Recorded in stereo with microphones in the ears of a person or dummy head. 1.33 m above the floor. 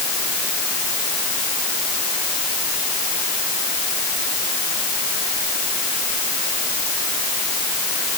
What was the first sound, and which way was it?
Only background noise.